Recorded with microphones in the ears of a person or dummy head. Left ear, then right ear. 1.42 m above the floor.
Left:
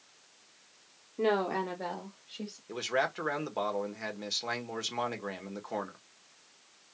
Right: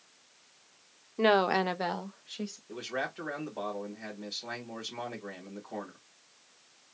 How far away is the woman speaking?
About 0.6 m.